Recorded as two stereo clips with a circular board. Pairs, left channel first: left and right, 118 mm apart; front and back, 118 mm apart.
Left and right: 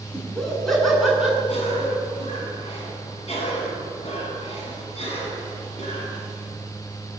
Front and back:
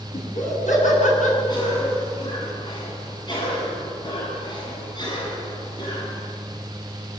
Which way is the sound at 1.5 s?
55° left.